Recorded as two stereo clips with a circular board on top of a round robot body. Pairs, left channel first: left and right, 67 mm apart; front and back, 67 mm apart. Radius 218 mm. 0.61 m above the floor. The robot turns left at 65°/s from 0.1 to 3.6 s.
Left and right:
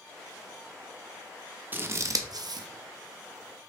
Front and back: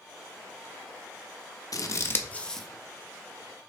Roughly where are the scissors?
Ahead right.